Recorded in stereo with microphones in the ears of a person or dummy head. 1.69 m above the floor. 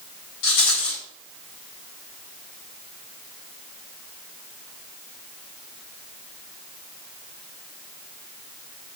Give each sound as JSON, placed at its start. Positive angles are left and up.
{"t": 0.4, "sound": "a rattle", "side_deg": 65, "distance_m": 4.5}